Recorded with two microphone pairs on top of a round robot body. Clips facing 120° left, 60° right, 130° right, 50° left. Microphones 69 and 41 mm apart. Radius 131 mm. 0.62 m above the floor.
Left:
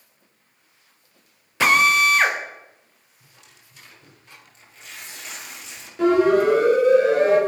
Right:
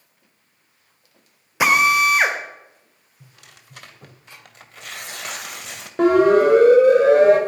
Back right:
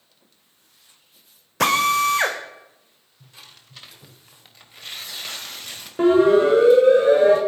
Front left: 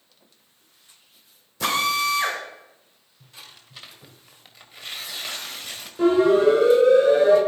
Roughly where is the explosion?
I don't hear an explosion.